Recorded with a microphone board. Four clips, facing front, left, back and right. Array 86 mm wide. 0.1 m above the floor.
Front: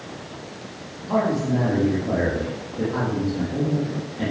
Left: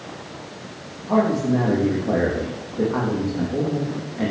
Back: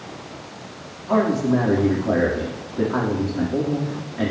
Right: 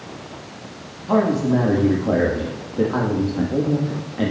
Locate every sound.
1.1 s a man speaking: 105° right, 4 m